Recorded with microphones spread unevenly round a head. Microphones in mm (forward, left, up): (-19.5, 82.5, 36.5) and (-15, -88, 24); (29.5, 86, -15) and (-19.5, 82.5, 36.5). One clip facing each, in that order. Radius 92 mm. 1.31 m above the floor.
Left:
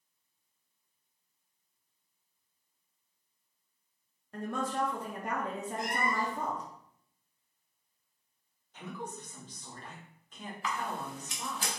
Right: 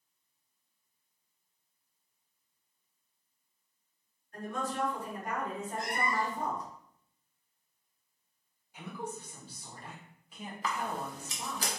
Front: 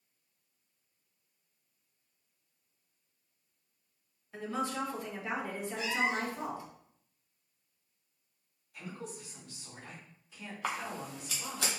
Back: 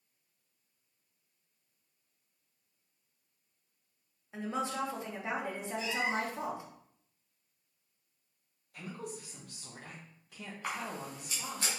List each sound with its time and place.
4.3 s a woman speaking: 125° left, 1.8 m
5.8 s a cat meowing: 50° left, 0.9 m
8.7 s a woman speaking: 170° right, 1.8 m
10.6 s a camera shutter: 45° right, 0.8 m